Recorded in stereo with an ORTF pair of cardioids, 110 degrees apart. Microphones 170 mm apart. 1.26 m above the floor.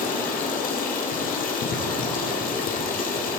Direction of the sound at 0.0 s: 55° left.